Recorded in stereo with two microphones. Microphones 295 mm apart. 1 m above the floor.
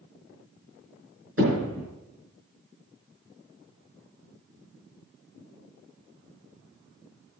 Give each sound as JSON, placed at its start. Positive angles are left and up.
{"t": 1.4, "sound": "hammering", "side_deg": -50, "distance_m": 5.5}